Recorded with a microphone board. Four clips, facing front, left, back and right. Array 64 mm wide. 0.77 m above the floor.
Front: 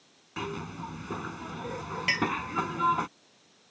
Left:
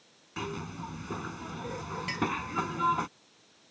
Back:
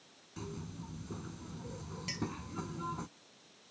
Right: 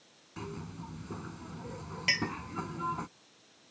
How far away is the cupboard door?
I don't hear a cupboard door.